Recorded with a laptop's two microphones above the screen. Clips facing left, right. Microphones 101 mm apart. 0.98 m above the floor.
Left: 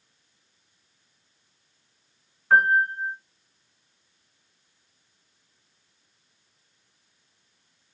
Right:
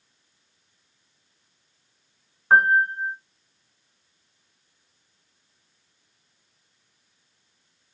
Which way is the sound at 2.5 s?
40° right (ahead or behind).